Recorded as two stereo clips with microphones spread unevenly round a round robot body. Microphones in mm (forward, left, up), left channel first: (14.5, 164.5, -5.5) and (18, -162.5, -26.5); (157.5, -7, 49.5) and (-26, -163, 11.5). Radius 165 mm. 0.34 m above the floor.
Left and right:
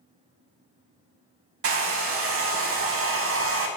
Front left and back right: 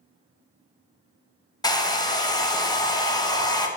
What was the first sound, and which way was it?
A hair dryer, 35° right.